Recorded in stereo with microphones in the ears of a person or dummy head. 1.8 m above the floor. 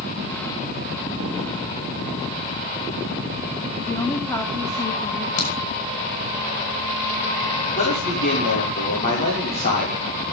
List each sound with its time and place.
3.9 s a woman speaking: 10° left (ahead or behind), 2 m
5.4 s a crack: 75° left (ahead or behind), 7.5 m
7.8 s a man speaking: 40° left (ahead or behind), 6.5 m